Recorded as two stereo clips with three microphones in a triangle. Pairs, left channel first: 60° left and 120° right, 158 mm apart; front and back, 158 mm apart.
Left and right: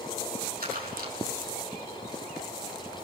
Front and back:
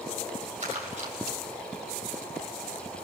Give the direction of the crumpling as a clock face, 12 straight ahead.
5 o'clock.